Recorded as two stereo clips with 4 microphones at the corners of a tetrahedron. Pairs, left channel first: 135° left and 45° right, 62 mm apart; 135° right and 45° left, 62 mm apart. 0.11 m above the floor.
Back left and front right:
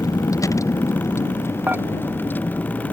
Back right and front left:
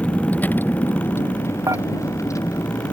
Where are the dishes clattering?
15° left.